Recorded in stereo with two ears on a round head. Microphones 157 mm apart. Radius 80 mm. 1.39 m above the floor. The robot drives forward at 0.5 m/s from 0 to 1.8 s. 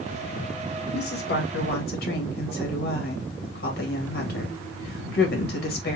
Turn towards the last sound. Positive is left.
turn(degrees=60)  # may be behind; listen again after turning